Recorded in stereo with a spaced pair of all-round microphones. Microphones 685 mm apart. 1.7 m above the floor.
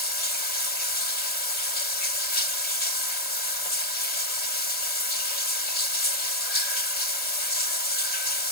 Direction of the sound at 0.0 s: 70° left (ahead or behind).